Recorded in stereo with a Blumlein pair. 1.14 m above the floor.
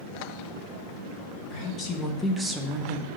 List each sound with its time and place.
1.5 s a woman speaking: 35° left, 1.3 m; by 3.1 s 50° right, 0.9 m